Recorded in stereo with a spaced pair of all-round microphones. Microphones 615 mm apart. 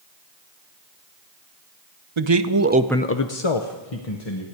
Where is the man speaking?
50° right (ahead or behind), 0.9 m; by 4.5 s 75° left (ahead or behind), 1.6 m.